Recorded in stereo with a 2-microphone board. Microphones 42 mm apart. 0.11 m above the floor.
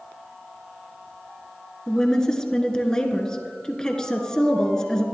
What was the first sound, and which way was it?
A woman speaking, 15° left (ahead or behind).